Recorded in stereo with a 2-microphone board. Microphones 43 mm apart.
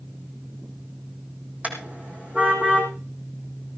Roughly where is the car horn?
Right.